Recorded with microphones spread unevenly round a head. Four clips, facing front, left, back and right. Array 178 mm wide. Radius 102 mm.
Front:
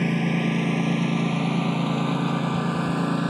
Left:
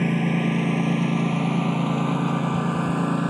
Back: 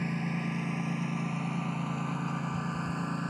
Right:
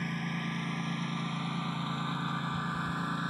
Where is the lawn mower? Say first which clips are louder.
Left 14 dB, front 10 dB; 50° left; by 3.3 s 45° left.